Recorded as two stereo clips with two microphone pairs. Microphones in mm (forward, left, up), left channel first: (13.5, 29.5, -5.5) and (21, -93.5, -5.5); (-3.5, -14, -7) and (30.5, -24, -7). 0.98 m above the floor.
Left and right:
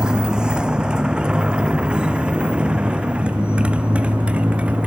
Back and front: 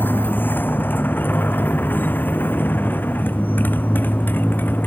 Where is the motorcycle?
170° right; by 4.9 s 165° right.